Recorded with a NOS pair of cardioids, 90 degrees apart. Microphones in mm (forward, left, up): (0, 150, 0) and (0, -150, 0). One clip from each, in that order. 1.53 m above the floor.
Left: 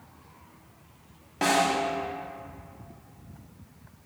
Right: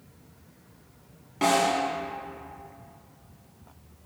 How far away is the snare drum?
About 1.3 m.